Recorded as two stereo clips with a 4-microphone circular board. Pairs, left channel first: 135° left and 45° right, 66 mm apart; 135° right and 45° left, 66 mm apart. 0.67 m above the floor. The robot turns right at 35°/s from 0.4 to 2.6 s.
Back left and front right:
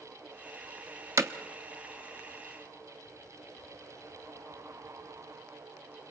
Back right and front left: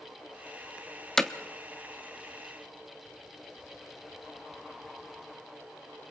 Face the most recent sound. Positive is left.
turn(degrees=-5)